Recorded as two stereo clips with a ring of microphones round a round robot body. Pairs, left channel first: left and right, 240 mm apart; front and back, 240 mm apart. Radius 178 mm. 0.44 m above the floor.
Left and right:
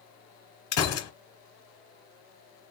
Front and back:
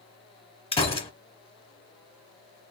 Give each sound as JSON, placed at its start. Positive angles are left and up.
{"t": 0.7, "sound": "a gunshot", "azimuth_deg": 70, "distance_m": 1.3}